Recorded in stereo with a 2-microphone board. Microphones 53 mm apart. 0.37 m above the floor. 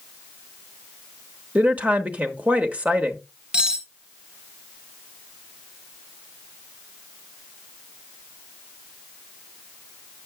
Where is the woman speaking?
30° right (ahead or behind), 0.9 m.